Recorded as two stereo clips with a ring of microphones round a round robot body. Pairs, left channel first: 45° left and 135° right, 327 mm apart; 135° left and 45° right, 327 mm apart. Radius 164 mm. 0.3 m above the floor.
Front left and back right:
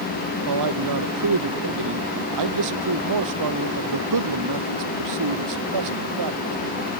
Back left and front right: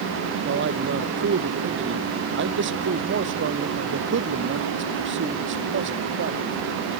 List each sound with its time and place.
0.5 s a man speaking: 100° right